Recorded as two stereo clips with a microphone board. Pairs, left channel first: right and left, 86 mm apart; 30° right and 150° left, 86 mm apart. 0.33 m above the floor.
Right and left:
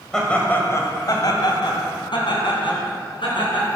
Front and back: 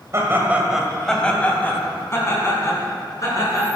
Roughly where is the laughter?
Behind.